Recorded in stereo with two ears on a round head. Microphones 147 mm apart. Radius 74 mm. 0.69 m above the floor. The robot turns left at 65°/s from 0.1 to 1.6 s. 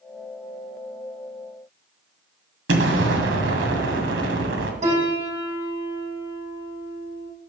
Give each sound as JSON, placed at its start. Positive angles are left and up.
{"t": 2.7, "sound": "an explosion", "side_deg": -85, "distance_m": 2.0}
{"t": 4.8, "sound": "a piano", "side_deg": -45, "distance_m": 5.0}